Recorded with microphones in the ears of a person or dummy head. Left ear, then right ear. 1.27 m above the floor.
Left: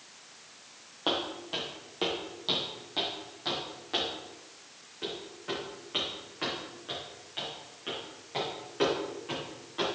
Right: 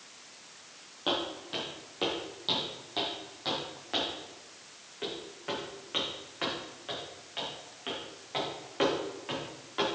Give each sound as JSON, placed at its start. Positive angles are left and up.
{"t": 1.1, "sound": "footsteps", "side_deg": 20, "distance_m": 1.9}